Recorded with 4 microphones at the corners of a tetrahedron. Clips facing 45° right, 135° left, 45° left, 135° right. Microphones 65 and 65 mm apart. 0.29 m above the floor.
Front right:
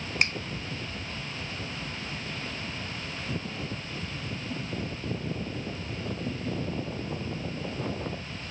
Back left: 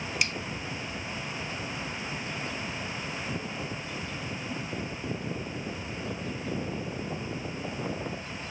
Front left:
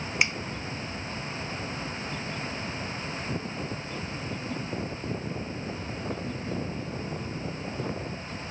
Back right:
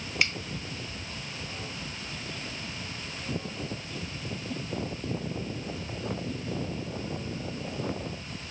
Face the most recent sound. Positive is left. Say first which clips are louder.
# front right 4 dB, front left 2 dB
turn(degrees=-20)